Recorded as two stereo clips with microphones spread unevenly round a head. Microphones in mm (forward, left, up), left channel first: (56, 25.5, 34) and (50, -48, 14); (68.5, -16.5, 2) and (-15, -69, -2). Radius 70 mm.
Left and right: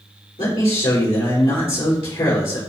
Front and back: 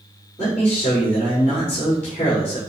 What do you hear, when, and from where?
0.4 s a man speaking: 110° left, 5 m